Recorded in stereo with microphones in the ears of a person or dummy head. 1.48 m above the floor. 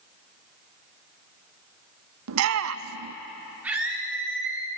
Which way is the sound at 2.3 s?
70° right (ahead or behind).